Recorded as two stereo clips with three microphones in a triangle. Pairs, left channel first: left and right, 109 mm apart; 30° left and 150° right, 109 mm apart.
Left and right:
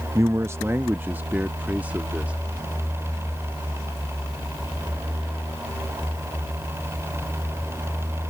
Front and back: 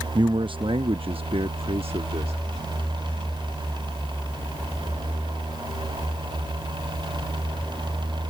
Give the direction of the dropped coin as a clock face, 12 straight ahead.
No dropped coin in this recording.